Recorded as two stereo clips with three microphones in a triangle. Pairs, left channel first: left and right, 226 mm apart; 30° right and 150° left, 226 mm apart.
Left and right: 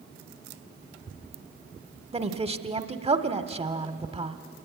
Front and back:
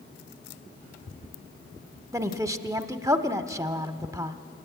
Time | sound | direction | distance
2.1 | a woman speaking | 140° right | 1.0 m